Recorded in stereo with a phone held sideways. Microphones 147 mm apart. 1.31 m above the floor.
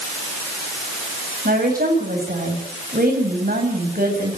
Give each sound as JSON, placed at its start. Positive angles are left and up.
{"t": 1.4, "sound": "a woman speaking", "side_deg": -90, "distance_m": 8.0}